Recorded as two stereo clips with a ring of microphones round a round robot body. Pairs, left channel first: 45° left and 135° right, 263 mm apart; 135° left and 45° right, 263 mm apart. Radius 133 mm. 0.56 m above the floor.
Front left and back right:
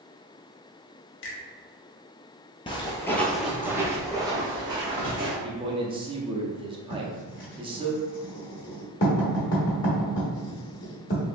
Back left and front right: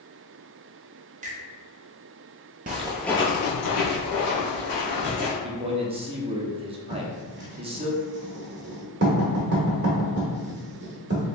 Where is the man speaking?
90° right, 0.7 m.